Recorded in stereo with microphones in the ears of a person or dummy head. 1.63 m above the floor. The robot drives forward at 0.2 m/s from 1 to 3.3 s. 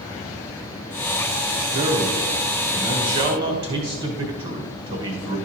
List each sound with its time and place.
1.7 s a man speaking: 35° right (ahead or behind), 1.2 m; by 5.4 s 30° right (ahead or behind), 1.4 m